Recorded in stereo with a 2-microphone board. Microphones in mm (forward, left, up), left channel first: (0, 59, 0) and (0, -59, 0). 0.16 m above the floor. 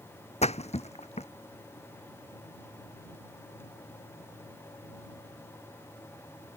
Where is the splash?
65° left (ahead or behind).